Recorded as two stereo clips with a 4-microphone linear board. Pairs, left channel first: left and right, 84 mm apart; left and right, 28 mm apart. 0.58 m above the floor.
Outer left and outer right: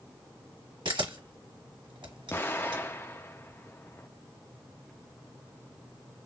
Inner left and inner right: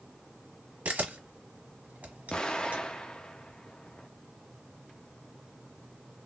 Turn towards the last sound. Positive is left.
turn(degrees=25)  # may be behind; listen again after turning